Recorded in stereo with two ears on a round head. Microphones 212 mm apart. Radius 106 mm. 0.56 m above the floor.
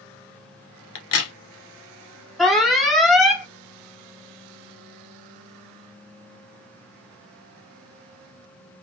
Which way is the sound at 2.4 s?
Centre (ahead or behind).